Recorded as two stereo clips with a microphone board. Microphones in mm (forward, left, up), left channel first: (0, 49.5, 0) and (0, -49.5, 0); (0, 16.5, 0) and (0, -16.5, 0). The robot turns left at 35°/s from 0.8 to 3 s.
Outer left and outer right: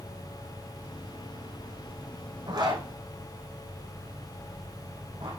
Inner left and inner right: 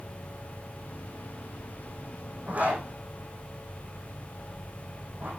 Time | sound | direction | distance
2.5 | a zipper | 50° right (ahead or behind) | 5 m